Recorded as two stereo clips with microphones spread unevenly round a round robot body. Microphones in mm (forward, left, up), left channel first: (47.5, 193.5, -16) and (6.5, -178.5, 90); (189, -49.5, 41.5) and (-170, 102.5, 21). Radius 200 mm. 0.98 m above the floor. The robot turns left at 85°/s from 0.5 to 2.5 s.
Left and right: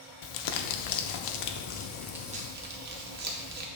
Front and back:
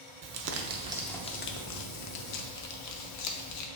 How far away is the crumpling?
About 0.6 m.